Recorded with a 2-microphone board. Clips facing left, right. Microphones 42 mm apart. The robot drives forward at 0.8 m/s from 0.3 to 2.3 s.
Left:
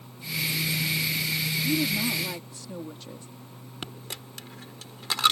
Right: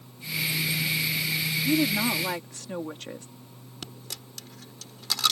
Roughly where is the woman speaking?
Right.